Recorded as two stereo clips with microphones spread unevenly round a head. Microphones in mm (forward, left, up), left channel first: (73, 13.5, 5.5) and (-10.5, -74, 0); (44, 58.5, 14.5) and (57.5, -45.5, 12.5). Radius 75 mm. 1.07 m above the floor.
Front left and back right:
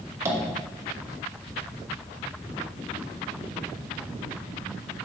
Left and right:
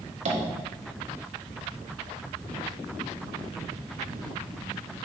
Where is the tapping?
70° right, 1.9 m.